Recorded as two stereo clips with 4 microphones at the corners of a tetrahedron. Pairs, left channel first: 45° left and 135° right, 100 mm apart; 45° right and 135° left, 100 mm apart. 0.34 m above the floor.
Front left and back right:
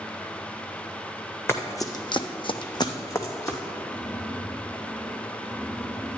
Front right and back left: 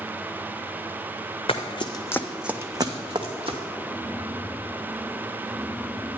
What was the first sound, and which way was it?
Running footsteps, 20° right.